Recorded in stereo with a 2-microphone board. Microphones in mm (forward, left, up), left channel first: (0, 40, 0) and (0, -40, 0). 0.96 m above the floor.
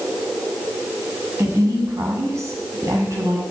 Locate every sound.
1.4 s a woman speaking: 40° right (ahead or behind), 6.5 m